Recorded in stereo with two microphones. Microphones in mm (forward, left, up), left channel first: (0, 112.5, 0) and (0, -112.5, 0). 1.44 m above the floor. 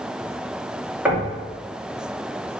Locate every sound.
1.1 s knocking: 5° right (ahead or behind), 2.5 m